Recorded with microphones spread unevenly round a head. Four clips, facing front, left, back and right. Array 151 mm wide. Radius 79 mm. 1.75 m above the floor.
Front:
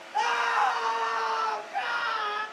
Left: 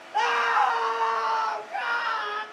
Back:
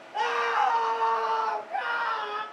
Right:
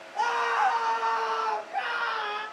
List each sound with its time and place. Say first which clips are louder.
0.1 s a scream: left 3 dB, even; 75° left, 0.6 m; by 2.4 s 150° left, 2.5 m